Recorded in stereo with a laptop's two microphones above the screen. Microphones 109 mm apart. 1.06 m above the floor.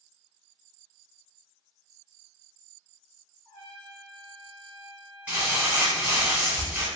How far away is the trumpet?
About 1.2 m.